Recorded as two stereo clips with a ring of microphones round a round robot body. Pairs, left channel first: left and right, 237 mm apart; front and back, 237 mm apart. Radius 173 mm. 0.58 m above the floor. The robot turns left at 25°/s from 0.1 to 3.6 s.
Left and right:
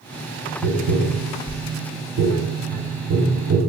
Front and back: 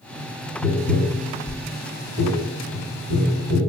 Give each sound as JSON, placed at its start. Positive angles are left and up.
{"t": 0.6, "sound": "tapping", "azimuth_deg": -70, "distance_m": 0.8}